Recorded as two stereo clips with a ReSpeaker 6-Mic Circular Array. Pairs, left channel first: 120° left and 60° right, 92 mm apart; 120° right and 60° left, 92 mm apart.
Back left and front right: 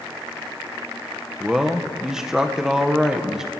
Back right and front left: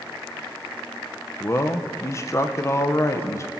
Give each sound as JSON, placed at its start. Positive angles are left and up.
{"t": 1.4, "sound": "a man speaking", "azimuth_deg": -140, "distance_m": 0.8}